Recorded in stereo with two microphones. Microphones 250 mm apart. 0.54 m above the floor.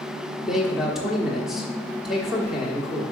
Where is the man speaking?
Centre (ahead or behind), 1.2 m.